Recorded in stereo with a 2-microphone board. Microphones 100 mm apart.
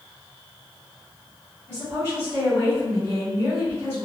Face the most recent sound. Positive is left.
turn(degrees=-25)  # may be behind; listen again after turning